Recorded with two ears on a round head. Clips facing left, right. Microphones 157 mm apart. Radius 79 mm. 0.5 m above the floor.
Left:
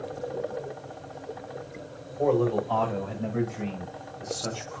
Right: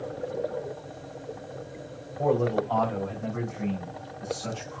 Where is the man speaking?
15° left (ahead or behind), 1.8 m; by 4.8 s 55° left (ahead or behind), 2.5 m.